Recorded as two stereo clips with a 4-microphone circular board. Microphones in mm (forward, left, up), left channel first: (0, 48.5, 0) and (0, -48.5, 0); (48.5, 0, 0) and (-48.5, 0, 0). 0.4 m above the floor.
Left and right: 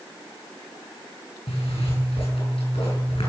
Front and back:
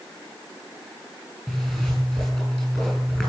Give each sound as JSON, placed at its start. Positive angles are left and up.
{"t": 1.5, "sound": "a zipper", "azimuth_deg": 95, "distance_m": 9.0}